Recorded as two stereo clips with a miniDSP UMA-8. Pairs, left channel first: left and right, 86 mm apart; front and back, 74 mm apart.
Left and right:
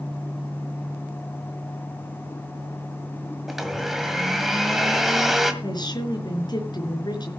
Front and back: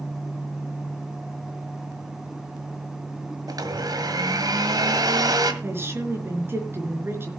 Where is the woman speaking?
125° left, 4 m.